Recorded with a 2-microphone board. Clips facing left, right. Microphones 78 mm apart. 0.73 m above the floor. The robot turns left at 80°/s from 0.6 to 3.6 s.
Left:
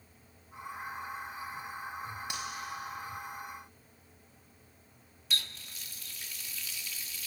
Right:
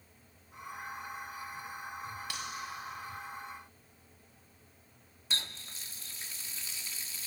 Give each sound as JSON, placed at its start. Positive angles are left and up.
{"t": 2.3, "sound": "cutlery clinking", "side_deg": 20, "distance_m": 3.0}
{"t": 5.3, "sound": "a running tap", "side_deg": -30, "distance_m": 0.9}